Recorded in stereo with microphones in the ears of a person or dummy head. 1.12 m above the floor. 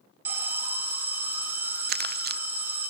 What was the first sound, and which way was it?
An alarm, 10° right (ahead or behind).